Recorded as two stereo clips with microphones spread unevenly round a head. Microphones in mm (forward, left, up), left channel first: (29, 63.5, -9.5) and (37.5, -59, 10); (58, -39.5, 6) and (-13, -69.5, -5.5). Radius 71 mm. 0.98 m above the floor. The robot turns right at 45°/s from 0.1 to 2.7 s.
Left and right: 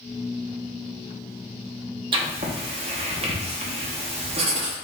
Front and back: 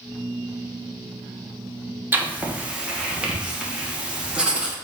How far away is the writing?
About 1.0 m.